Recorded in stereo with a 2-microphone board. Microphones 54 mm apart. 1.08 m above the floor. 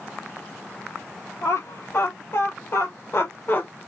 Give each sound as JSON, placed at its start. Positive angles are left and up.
{"t": 1.4, "sound": "laughter", "side_deg": 70, "distance_m": 3.0}